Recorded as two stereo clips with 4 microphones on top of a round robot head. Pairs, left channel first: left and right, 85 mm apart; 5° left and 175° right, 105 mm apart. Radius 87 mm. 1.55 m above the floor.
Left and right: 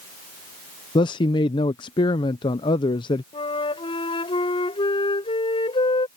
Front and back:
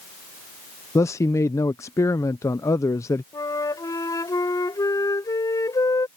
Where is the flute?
65° left.